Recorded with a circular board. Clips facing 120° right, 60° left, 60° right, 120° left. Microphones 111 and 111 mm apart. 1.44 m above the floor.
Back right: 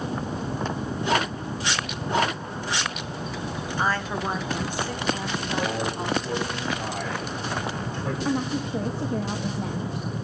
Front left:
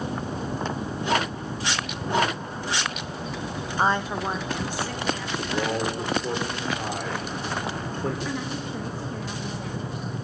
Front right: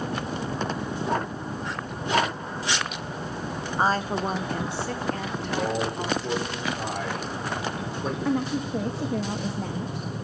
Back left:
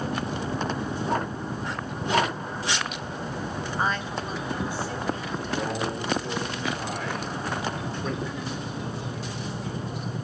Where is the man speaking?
15° left, 6 m.